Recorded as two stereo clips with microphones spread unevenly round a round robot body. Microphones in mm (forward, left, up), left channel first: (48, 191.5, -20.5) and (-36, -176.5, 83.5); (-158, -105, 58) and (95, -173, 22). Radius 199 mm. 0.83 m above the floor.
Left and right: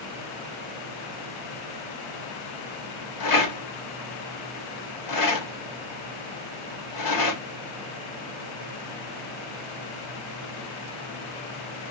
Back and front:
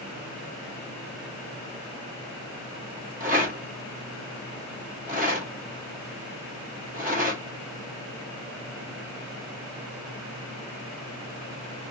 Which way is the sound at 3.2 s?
70° left.